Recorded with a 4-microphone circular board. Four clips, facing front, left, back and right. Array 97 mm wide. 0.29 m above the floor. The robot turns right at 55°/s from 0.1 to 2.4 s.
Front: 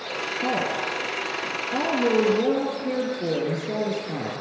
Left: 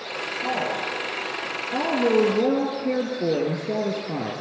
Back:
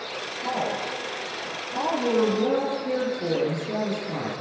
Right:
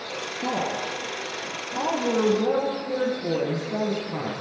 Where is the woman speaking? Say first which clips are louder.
Even, front 1 dB; 35° right, 8.5 m; by 4.3 s 75° left, 8.5 m.